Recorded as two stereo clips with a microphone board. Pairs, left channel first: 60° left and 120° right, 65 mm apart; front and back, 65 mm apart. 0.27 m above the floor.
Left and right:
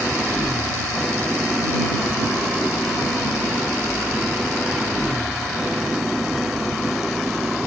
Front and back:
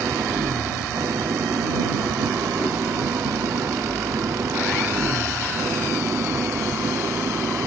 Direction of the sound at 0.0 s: 155° left.